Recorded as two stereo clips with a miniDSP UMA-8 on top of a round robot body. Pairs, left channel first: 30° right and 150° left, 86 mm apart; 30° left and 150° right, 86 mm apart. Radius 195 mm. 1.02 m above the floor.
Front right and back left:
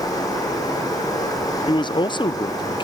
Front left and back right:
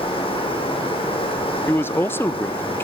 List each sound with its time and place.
0.0 s running water: 20° left, 6.5 m
1.7 s a man speaking: 30° right, 0.9 m